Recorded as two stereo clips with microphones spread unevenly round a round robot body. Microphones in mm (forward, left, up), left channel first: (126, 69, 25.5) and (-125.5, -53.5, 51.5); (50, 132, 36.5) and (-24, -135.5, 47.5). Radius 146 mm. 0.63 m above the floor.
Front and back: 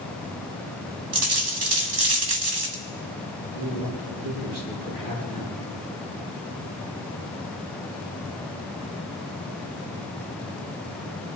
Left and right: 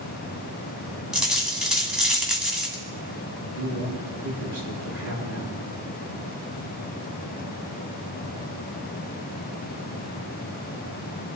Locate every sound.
1.1 s a dropped coin: 165° left, 1.9 m
3.5 s a man speaking: 145° right, 6 m